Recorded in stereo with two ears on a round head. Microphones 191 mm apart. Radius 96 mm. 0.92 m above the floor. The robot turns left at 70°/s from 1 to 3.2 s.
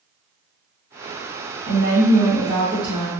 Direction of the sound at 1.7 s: 120° right.